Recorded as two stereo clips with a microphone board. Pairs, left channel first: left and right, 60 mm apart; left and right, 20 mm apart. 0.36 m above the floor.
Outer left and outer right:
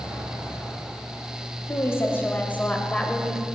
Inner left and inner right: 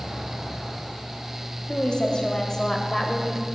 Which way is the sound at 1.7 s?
45° left (ahead or behind).